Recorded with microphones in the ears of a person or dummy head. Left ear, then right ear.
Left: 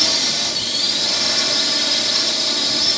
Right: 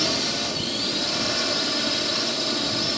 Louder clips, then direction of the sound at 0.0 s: Left 6 dB; 30° left (ahead or behind).